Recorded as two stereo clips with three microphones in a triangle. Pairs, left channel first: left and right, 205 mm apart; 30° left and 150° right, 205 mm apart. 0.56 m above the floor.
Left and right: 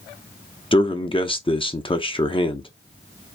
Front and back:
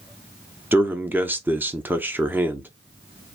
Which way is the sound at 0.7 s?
135° left.